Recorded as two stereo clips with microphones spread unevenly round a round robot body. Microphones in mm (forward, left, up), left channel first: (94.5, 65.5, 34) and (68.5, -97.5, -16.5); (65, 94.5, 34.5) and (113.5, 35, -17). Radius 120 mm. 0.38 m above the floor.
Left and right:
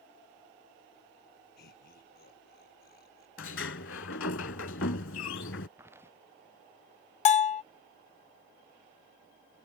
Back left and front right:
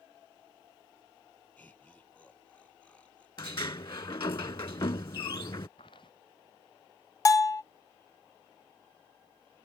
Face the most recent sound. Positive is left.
turn(degrees=45)